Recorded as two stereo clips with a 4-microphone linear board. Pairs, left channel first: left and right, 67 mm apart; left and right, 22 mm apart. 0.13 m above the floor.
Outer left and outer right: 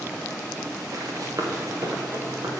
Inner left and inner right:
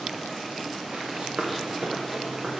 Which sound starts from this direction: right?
Running footsteps, at 0.9 s.